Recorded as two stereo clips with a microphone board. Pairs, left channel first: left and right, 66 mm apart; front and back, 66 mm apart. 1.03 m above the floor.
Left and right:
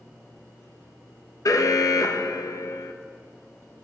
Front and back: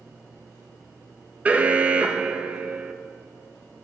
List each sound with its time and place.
1.4 s an alarm: 115° left, 0.8 m